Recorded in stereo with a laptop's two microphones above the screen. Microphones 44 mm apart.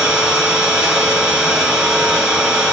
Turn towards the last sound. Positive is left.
turn(degrees=-15)  # may be behind; listen again after turning